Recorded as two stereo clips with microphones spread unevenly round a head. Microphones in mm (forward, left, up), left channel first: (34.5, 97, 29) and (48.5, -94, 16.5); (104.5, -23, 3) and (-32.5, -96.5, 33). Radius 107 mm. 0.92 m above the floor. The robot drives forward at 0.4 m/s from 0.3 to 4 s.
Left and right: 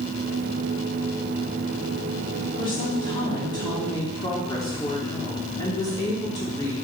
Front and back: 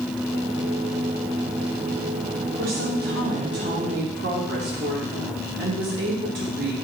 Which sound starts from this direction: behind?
A woman speaking, at 2.6 s.